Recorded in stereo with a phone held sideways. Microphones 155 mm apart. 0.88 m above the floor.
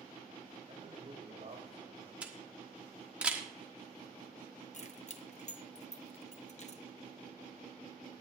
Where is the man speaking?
50° right (ahead or behind), 3.5 m.